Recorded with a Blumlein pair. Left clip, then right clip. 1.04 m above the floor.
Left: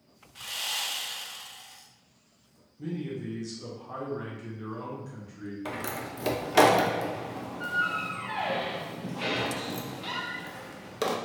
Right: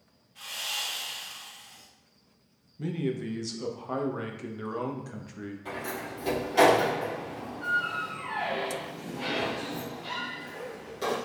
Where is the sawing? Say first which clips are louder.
Left 1 dB; 30° left, 0.8 m.